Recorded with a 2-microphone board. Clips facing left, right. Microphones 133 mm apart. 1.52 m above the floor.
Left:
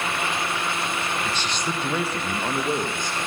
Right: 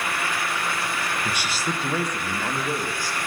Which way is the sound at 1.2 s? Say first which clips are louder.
Even; 15° right (ahead or behind).